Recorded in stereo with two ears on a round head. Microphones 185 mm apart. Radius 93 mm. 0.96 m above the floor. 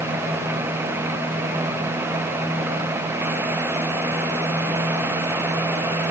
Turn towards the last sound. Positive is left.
No sound to turn to.